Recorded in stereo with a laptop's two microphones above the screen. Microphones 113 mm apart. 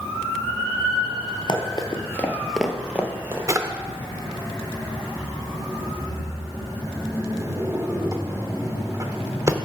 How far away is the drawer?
About 0.9 m.